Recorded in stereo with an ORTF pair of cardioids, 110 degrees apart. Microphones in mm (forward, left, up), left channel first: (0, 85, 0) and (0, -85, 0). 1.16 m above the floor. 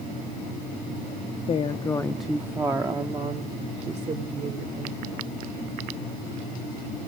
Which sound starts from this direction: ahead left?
A woman speaking, at 1.5 s.